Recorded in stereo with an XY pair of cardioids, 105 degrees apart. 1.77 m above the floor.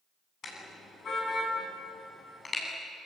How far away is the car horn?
About 9 m.